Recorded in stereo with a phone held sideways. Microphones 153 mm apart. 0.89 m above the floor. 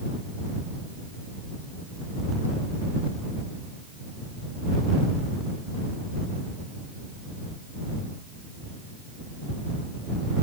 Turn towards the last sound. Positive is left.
No sound to turn to.